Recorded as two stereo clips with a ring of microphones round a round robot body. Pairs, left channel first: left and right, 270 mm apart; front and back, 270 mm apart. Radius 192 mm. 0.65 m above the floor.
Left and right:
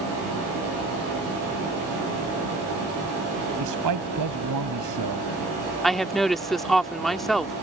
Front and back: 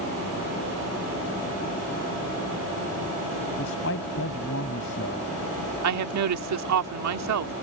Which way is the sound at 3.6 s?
60° right.